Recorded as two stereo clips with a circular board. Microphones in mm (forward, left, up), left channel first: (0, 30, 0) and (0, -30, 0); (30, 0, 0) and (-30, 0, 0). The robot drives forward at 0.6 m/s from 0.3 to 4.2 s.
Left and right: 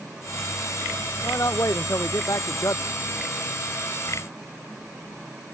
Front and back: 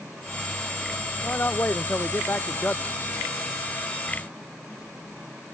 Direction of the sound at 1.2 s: 55° left.